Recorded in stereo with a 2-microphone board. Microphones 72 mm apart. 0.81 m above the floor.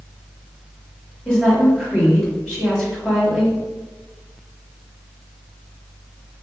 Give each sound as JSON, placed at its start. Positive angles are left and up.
{"t": 1.2, "sound": "a woman speaking", "side_deg": 10, "distance_m": 1.5}